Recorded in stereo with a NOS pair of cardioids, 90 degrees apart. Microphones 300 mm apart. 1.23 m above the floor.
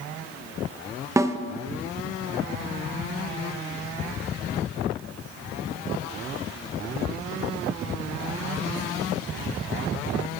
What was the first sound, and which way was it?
A snare drum, 10° right.